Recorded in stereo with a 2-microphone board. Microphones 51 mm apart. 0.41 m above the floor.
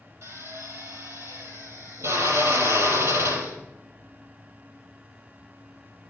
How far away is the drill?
About 4 m.